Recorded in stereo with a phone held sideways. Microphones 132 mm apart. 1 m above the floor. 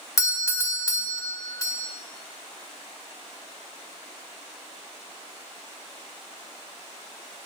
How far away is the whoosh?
I don't hear a whoosh.